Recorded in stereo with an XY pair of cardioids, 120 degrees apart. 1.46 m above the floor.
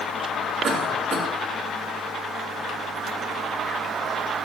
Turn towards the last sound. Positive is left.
turn(degrees=-50)